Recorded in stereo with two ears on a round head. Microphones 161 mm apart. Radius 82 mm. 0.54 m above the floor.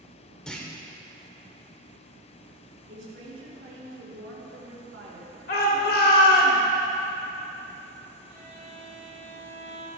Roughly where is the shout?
Left.